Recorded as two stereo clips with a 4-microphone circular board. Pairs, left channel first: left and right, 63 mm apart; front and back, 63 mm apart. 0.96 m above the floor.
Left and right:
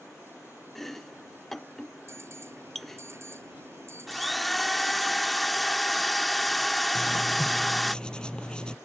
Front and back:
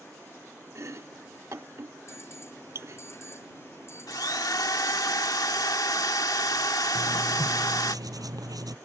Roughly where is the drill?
Ahead.